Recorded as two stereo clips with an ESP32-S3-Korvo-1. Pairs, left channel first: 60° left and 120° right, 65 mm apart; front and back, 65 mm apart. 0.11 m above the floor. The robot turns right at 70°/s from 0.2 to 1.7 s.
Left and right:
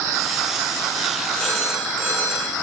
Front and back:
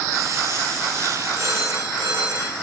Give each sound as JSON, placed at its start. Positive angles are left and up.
{"t": 1.4, "sound": "a phone ringing", "azimuth_deg": 130, "distance_m": 7.0}